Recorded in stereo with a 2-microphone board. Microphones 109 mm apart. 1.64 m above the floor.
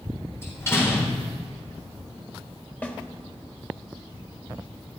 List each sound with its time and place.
0.4 s a door slam: 25° left (ahead or behind), 4 m
2.8 s a snare drum: 15° left (ahead or behind), 1.4 m